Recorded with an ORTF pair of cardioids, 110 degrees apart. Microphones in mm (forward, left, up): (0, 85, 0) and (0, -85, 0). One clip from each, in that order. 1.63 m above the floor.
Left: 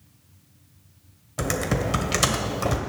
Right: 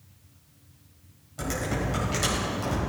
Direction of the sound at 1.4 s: 55° left.